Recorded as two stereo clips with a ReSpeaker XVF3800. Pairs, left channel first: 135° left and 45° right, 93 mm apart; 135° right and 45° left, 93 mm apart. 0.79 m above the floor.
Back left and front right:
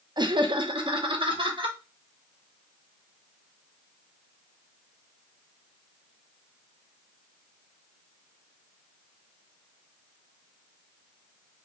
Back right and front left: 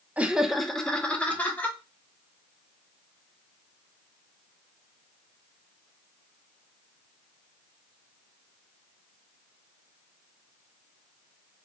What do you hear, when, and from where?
0.2 s laughter: 25° right, 0.5 m; by 1.8 s 65° right, 1.2 m